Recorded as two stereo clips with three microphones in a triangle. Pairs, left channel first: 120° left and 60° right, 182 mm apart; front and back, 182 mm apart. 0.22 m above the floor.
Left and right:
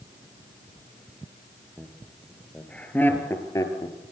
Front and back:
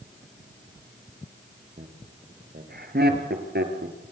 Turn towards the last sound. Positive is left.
turn(degrees=-175)